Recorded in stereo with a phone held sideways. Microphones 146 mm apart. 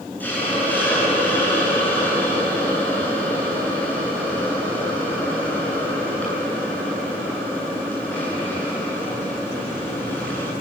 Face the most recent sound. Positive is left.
turn(degrees=10)  # may be behind; listen again after turning